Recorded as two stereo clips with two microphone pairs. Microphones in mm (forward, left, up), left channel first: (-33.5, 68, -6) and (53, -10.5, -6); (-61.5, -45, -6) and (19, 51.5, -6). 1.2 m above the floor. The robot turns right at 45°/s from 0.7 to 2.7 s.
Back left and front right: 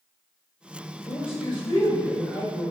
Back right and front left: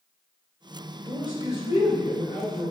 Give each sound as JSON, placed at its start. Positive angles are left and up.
{"t": 1.0, "sound": "a man speaking", "azimuth_deg": 165, "distance_m": 1.6}